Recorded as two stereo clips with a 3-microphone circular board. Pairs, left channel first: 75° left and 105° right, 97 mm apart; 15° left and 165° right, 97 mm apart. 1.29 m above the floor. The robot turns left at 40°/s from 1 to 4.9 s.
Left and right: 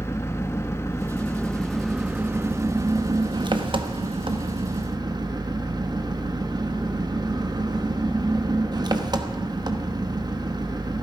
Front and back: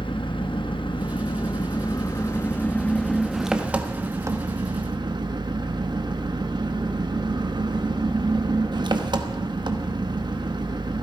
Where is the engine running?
15° left, 0.9 m; by 11.0 s 140° right, 0.9 m.